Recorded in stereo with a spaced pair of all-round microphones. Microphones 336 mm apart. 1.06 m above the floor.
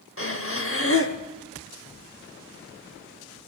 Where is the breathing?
40° left (ahead or behind), 0.8 m.